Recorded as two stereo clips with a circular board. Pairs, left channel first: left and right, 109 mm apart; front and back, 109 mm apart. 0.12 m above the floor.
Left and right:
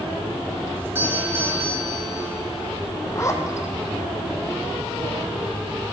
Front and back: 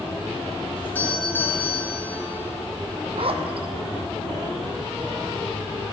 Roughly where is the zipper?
Behind left.